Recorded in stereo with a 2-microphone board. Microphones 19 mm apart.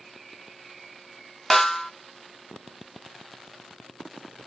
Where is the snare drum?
15° left (ahead or behind), 0.5 m.